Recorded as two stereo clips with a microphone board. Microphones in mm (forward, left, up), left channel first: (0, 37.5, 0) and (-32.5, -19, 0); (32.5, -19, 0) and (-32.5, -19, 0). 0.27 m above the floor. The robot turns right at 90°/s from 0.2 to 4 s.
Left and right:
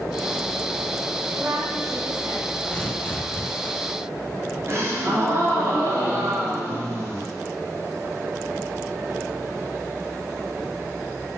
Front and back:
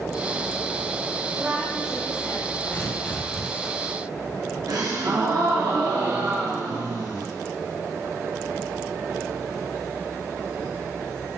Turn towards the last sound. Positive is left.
turn(degrees=-165)